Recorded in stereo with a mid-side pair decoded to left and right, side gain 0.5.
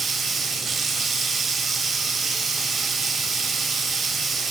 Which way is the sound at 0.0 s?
40° right.